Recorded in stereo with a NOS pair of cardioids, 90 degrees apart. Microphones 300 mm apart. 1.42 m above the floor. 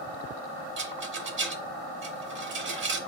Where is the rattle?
40° right, 1.0 m.